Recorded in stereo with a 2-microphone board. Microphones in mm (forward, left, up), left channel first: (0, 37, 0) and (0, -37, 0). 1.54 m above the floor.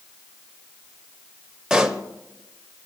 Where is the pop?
10° right (ahead or behind), 0.8 m.